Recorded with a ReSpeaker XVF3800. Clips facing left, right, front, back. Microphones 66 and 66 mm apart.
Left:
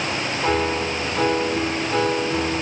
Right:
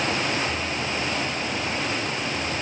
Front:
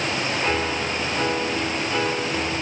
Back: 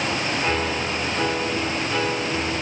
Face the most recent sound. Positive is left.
turn(degrees=90)